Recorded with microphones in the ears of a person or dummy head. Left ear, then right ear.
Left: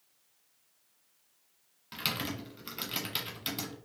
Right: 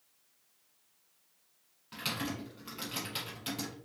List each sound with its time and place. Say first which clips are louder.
1.9 s typing on a keyboard: left 2 dB; 20° left (ahead or behind), 0.8 m